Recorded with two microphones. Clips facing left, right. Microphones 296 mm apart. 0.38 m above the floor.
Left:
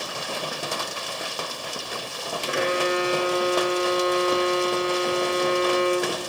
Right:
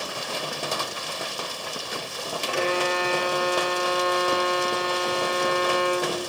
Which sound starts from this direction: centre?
A violin, at 2.5 s.